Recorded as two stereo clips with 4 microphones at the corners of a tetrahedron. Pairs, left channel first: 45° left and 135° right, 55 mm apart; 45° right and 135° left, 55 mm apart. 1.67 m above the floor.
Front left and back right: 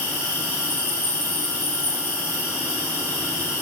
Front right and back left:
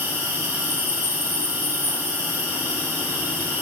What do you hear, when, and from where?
0.0 s an insect: 85° left, 1.9 m